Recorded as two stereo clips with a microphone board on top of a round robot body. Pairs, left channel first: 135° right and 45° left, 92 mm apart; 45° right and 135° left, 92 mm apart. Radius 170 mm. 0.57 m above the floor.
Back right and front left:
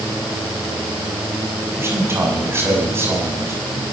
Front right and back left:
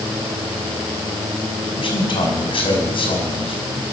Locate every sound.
1.8 s a man speaking: 20° right, 6 m